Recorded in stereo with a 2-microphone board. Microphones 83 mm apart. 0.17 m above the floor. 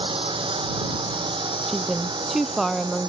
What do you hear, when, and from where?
0.0 s a drone: 80° right; by 3.1 s 60° right (ahead or behind)
1.7 s a woman speaking: centre (ahead or behind)